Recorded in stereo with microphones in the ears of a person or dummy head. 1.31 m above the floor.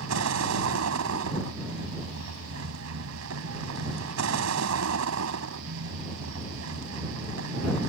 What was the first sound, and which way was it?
A vehicle, 75° right (ahead or behind).